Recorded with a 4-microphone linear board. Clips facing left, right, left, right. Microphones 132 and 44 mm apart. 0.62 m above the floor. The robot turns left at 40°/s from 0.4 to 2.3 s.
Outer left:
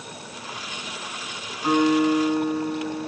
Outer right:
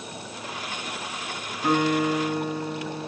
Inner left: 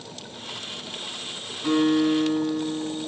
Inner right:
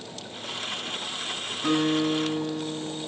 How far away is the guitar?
About 4.5 m.